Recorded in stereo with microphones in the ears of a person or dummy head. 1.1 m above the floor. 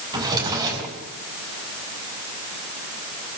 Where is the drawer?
20° right (ahead or behind), 4.5 m.